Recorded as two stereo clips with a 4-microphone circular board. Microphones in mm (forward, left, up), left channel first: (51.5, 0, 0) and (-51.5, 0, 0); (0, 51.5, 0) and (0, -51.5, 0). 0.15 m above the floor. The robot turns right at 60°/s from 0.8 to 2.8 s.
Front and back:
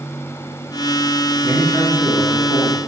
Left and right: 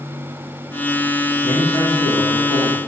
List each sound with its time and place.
1.4 s a man speaking: 135° right, 1.0 m; by 2.8 s 55° right, 1.0 m